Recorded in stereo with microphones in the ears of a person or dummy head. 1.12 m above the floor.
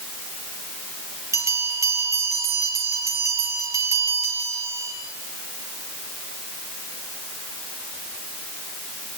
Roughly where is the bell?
Centre.